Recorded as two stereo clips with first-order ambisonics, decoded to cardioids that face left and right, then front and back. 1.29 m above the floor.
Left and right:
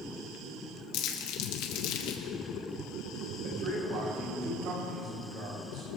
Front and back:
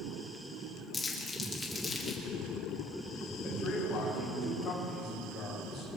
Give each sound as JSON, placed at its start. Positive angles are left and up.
{"t": 0.9, "sound": "crumpling", "azimuth_deg": 75, "distance_m": 1.9}
{"t": 3.4, "sound": "a man speaking", "azimuth_deg": -55, "distance_m": 6.5}